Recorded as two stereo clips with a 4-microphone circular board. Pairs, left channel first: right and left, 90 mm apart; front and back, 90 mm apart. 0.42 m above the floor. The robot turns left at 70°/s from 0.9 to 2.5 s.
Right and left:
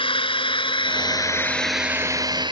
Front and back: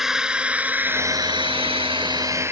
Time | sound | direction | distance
0.0 | a drone | 95° right | ?